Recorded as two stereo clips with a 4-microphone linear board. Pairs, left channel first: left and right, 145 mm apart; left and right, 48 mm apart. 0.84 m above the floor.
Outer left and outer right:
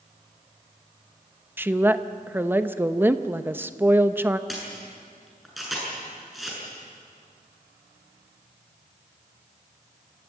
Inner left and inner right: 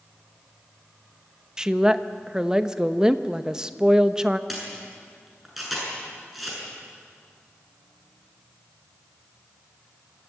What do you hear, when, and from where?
1.6 s a woman speaking: 15° right (ahead or behind), 0.8 m
4.5 s a camera shutter: centre (ahead or behind), 6.5 m